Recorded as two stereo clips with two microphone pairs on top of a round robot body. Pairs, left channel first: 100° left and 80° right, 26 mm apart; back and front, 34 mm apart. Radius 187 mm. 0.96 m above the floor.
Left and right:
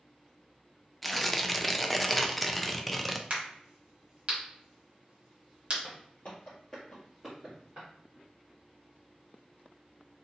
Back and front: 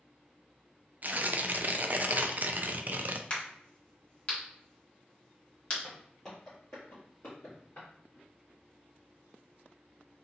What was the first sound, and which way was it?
Tearing paper, 10° left.